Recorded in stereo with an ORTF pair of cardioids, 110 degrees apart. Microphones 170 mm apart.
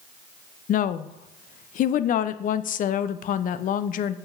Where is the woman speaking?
55° left, 0.6 m.